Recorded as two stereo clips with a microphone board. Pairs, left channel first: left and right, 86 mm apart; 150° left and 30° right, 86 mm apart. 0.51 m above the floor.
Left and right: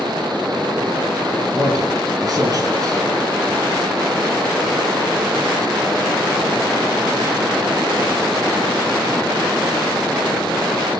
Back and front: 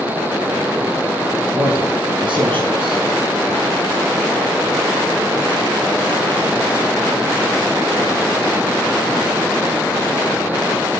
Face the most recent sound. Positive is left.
turn(degrees=-45)